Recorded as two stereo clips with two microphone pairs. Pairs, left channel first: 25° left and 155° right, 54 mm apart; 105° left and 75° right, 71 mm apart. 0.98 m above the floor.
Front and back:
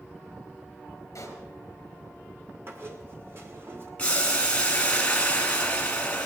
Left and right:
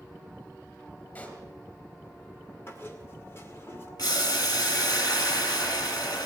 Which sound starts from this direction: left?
Boiling, at 4.0 s.